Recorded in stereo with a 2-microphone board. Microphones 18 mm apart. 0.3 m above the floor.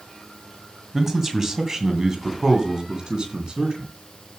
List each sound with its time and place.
0.9 s a man speaking: 20° right (ahead or behind), 2 m; by 3.9 s 50° right (ahead or behind), 4 m